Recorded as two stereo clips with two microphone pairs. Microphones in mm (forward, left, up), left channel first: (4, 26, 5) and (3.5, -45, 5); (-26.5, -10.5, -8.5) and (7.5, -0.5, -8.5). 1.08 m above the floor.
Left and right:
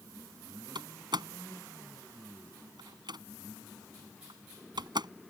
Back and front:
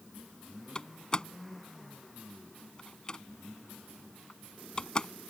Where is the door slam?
95° right.